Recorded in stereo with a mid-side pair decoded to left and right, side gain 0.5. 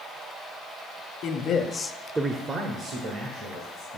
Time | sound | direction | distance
1.2 | a man speaking | 70° left | 1.0 m